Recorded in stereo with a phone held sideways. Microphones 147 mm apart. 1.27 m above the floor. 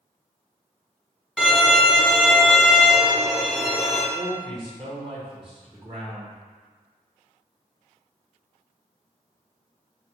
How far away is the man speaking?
About 1.5 m.